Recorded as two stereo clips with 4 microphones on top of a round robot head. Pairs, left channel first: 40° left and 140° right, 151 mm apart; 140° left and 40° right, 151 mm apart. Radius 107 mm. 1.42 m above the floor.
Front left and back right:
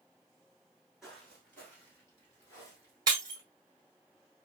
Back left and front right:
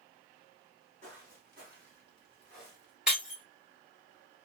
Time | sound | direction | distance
1.0 | footsteps | 50° right | 1.5 m
3.1 | breaking glass | 115° right | 1.1 m